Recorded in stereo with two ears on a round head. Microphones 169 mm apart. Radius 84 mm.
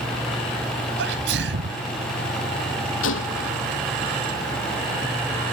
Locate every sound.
1.0 s a sneeze: 70° right (ahead or behind)
3.0 s a gunshot: 75° left (ahead or behind)